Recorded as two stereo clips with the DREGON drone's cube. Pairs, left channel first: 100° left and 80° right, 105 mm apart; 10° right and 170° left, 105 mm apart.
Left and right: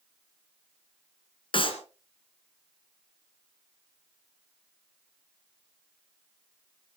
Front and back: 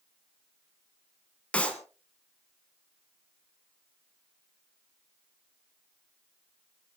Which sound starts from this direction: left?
A clap, at 1.5 s.